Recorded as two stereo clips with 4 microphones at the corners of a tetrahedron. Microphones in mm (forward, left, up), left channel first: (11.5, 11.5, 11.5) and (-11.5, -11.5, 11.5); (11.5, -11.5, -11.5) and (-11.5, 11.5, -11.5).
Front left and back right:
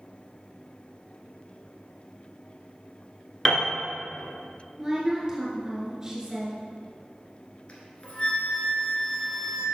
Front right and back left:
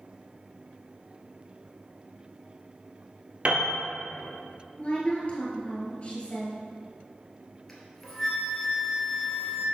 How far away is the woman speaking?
About 1.9 m.